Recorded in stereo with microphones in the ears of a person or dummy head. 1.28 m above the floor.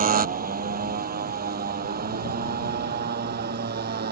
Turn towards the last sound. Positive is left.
turn(degrees=-45)  # may be behind; listen again after turning